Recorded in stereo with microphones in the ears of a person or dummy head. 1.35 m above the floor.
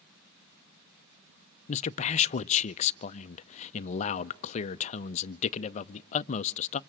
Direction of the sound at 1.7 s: 35° left (ahead or behind).